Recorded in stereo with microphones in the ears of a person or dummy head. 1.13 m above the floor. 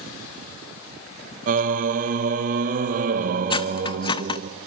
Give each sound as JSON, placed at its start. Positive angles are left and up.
{"t": 1.5, "sound": "singing", "side_deg": -45, "distance_m": 1.2}
{"t": 3.5, "sound": "cutlery clinking", "side_deg": 30, "distance_m": 0.6}